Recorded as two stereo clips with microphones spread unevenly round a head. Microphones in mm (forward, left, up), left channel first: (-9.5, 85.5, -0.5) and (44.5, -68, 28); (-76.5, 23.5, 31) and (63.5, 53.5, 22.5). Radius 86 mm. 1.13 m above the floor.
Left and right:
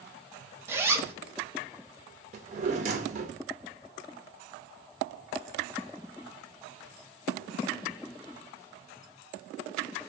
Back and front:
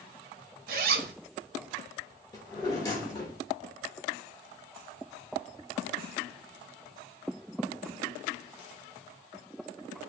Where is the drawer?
105° right, 0.6 m.